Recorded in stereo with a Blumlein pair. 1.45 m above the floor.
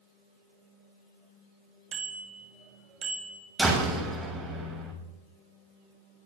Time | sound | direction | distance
1.9 | a bicycle bell | 30° right | 6.5 m
3.6 | a door slam | 10° right | 8 m